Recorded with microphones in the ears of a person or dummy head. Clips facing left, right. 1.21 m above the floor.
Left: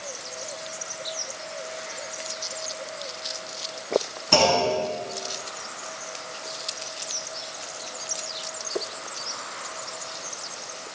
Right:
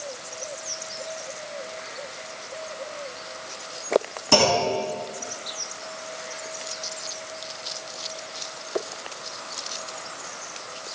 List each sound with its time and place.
4.3 s a clunk: 65° right (ahead or behind), 5.5 m